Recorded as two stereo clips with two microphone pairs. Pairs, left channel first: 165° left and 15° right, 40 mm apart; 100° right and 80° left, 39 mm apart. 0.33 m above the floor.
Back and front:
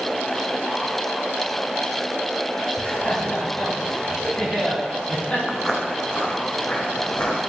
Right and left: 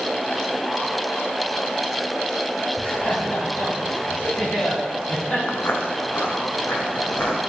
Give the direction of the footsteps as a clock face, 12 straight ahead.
4 o'clock.